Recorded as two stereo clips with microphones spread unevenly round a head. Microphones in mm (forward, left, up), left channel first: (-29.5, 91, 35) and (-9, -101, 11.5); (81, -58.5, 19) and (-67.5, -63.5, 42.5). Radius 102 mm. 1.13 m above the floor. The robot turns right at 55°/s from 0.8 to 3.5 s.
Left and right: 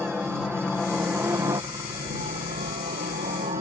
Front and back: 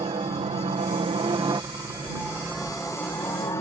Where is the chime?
I don't hear a chime.